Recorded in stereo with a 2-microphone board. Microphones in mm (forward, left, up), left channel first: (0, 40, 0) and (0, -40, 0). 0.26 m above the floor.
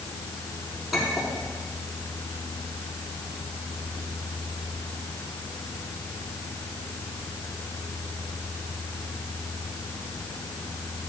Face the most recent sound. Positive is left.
turn(degrees=0)  # may be behind; listen again after turning